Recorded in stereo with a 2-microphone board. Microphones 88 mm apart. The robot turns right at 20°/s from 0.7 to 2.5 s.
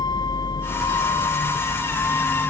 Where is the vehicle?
125° left; by 2.5 s 160° left.